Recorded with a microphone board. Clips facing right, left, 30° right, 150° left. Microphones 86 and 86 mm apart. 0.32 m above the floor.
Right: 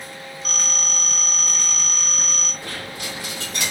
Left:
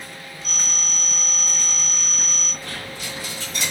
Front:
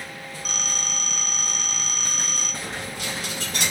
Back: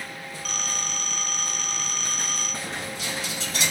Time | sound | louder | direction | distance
0.5 | a phone ringing | right 2 dB, even | 100° right | 0.8 m
2.6 | a dropped coin | right 1 dB, front 1 dB | 65° right | 1.4 m